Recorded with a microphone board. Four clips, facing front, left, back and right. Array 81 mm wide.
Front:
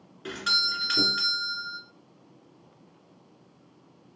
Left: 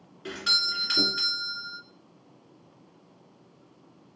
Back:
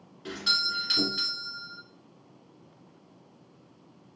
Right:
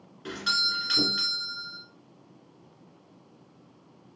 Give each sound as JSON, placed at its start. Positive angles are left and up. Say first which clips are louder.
{"t": 0.2, "sound": "a doorbell", "louder": "right 2 dB, front 2 dB", "azimuth_deg": 0, "distance_m": 1.7}